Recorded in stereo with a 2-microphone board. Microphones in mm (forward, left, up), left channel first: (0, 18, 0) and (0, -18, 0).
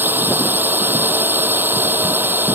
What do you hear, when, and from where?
0.0 s a drone: 70° right (ahead or behind)